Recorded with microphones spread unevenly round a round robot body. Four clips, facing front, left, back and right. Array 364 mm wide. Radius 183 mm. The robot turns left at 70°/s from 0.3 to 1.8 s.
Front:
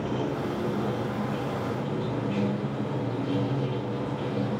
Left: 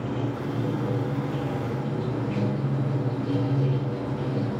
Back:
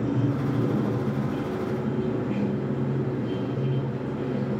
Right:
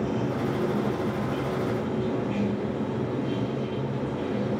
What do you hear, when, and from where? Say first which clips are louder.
0.0 s running water: right 2 dB, back 3 dB; 155° right, 5.5 m; by 4.6 s 100° left, 5.5 m